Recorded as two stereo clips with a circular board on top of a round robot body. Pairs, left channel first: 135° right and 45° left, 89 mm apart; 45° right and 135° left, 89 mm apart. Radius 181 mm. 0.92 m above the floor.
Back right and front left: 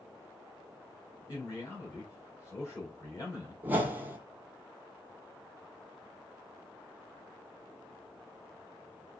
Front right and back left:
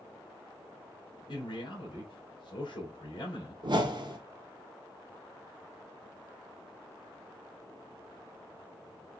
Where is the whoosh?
115° left, 1.5 m.